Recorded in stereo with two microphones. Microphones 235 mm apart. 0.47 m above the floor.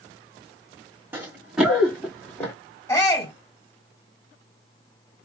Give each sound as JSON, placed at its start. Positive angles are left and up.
{"t": 1.1, "sound": "running footsteps", "side_deg": -5, "distance_m": 1.6}
{"t": 2.9, "sound": "a shout", "side_deg": 10, "distance_m": 2.5}